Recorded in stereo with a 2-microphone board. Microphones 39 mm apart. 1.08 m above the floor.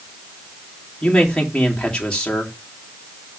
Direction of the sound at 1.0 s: 20° left (ahead or behind).